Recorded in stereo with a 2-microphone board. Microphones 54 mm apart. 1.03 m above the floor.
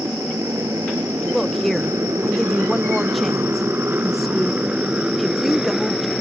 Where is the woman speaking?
Centre (ahead or behind).